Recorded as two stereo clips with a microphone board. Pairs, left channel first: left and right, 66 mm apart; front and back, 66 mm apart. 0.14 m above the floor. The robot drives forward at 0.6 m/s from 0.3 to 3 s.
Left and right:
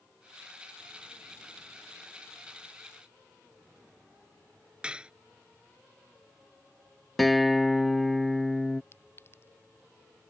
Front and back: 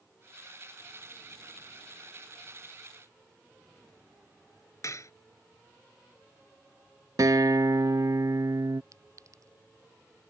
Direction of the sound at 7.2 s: Straight behind.